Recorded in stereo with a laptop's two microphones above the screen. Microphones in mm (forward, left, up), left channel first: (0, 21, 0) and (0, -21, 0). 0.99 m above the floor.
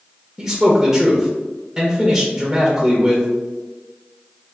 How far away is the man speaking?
About 0.6 m.